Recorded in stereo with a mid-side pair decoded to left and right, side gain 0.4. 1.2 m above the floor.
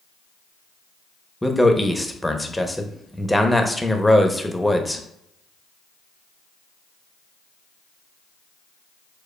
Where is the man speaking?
5° left, 0.7 m.